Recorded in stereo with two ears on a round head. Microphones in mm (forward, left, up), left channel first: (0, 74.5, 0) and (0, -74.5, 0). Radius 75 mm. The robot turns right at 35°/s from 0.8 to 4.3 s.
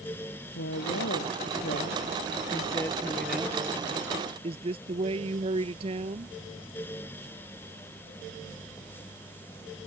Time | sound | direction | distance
0.6 | a woman speaking | 90° left | ?